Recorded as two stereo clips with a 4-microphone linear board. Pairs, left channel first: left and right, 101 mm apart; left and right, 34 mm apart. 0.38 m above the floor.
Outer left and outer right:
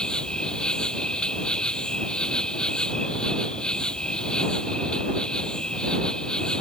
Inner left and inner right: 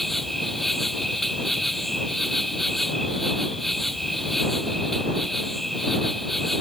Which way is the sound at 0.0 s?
5° left (ahead or behind).